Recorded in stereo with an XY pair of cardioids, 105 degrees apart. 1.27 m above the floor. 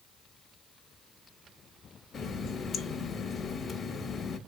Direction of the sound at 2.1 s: 55° left.